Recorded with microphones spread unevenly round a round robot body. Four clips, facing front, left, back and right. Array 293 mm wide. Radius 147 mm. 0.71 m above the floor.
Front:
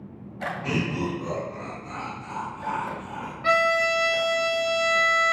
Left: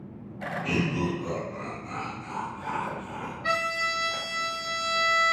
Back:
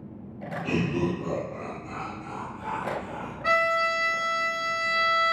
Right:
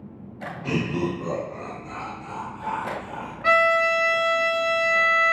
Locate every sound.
0.6 s laughter: 30° right, 0.6 m; by 3.3 s 90° right, 3 m
3.4 s a violin: 65° right, 0.8 m